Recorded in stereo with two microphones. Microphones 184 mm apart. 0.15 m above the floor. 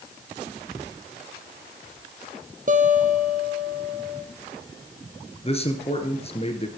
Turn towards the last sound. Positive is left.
turn(degrees=35)  # may be behind; listen again after turning